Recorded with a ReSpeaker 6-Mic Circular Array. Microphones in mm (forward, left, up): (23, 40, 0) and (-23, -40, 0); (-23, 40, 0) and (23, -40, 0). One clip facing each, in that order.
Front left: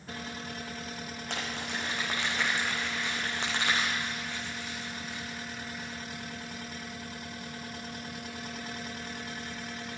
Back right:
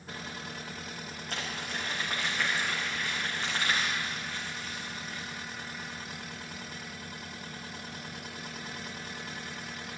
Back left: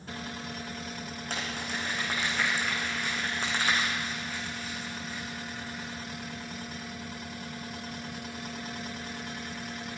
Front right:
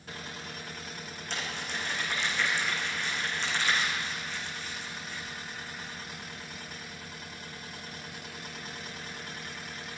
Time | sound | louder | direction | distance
1.3 | crumpling | front left 1 dB, back left 1 dB | 80° left | 4.5 m